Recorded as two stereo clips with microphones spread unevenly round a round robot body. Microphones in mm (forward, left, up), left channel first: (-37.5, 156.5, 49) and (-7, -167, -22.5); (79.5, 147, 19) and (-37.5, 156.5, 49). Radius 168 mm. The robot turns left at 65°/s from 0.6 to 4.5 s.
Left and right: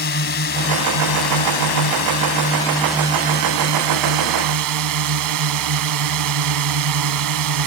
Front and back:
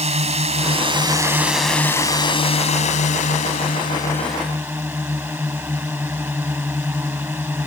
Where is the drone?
150° left; by 7.7 s 100° right.